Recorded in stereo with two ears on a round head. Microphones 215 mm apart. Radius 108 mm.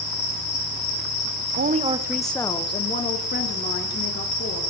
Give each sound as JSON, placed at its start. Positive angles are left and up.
{"t": 1.6, "sound": "a woman speaking", "side_deg": -40, "distance_m": 0.5}